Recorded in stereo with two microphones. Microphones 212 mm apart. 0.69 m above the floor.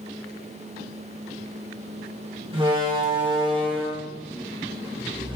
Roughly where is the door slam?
Right.